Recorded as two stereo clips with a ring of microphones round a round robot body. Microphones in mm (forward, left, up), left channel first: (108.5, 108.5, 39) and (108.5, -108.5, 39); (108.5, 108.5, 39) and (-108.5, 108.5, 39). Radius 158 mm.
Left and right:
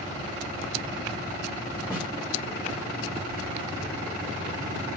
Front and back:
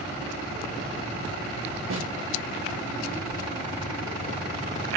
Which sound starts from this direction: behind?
A snare drum, at 1.9 s.